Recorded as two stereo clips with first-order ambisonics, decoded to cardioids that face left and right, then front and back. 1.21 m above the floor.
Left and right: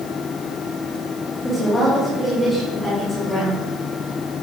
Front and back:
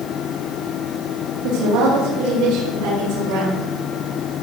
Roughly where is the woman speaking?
Behind.